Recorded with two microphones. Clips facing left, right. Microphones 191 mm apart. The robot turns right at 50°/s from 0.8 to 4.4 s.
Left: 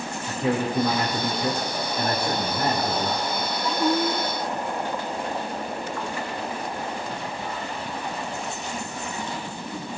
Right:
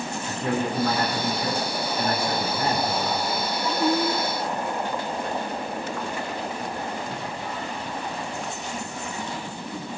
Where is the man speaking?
5° left, 3 m; by 3.2 s 125° left, 3 m.